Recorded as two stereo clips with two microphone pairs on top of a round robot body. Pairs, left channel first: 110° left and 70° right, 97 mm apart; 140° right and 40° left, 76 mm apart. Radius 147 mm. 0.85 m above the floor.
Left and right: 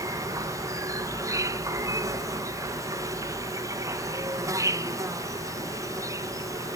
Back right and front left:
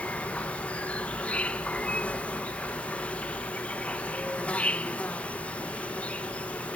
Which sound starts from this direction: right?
An insect, at 0.0 s.